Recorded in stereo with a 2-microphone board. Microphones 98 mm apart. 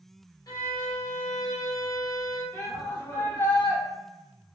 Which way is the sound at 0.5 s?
45° left (ahead or behind).